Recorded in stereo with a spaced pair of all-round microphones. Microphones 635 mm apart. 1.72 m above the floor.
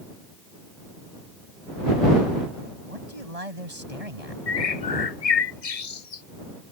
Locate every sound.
2.8 s a man speaking: 65° right (ahead or behind)
4.5 s a bird: 65° left (ahead or behind)